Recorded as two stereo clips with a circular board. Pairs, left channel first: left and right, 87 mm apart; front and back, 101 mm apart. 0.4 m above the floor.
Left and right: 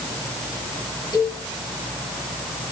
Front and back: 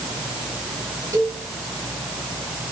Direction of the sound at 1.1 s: 120° left.